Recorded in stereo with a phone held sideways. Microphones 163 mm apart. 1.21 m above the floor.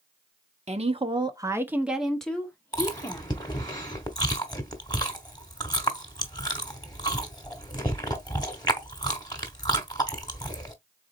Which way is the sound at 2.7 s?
25° left (ahead or behind).